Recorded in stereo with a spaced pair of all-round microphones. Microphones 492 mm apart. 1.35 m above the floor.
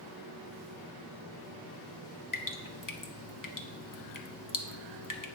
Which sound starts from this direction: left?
Dripping, at 2.3 s.